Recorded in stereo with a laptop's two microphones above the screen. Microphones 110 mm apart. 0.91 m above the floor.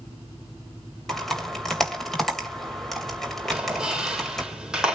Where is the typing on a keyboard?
Centre (ahead or behind), 3 m.